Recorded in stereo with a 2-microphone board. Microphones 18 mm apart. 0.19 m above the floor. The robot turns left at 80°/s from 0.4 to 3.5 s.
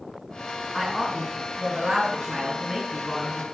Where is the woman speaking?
15° right, 1.8 m; by 3.4 s 125° left, 1.8 m.